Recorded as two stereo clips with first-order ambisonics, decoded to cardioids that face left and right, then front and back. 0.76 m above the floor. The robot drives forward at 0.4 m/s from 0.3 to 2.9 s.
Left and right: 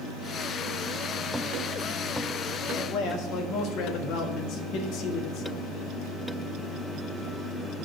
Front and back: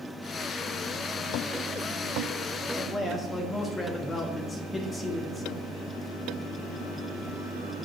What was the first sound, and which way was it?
A man speaking, 65° left.